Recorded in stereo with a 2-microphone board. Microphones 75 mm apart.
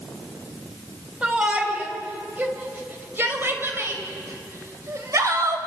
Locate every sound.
1.2 s a shout: 15° right (ahead or behind), 5 m; by 5.6 s 45° right (ahead or behind), 4.5 m